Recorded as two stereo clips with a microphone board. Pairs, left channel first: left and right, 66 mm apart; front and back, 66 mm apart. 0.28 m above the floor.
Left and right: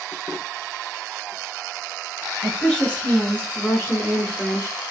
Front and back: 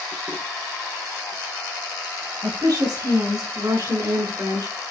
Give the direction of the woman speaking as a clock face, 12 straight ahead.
6 o'clock.